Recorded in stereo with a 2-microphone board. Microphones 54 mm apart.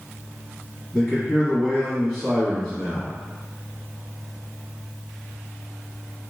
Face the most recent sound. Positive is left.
turn(degrees=10)  # may be behind; listen again after turning